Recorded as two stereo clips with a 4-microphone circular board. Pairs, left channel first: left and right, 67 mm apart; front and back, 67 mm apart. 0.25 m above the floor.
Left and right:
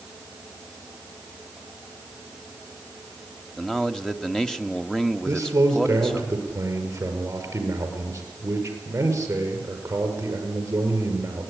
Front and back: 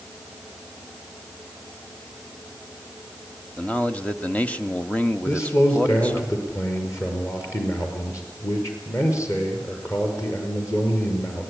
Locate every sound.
3.6 s a man speaking: 20° left, 0.9 m
5.2 s a man speaking: 40° right, 6 m